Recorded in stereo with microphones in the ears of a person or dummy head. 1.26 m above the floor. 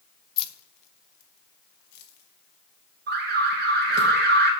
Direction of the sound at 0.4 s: 30° left (ahead or behind).